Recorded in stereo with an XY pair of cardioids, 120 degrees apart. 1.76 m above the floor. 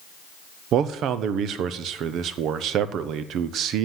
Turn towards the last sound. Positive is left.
turn(degrees=-65)